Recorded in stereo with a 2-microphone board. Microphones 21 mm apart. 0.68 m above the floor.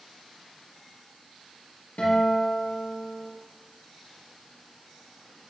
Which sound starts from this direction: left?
A guitar, at 2.0 s.